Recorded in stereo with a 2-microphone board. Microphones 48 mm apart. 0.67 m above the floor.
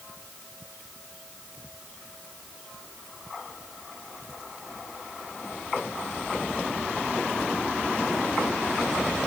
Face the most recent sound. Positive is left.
No sound to turn to.